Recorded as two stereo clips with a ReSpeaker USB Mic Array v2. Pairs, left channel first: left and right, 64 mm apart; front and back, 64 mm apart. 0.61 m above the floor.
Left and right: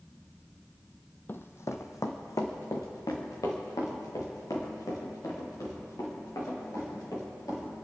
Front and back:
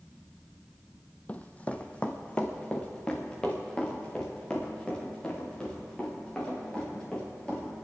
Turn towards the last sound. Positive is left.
turn(degrees=80)